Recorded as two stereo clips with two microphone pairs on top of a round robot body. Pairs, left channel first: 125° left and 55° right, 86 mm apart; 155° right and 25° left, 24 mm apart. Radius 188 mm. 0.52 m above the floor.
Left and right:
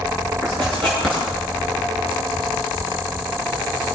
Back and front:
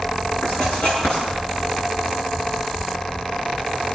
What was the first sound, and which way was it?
Writing, 155° right.